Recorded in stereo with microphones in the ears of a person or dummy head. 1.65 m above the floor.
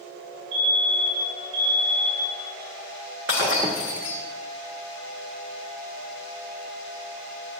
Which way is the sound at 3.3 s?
15° right (ahead or behind).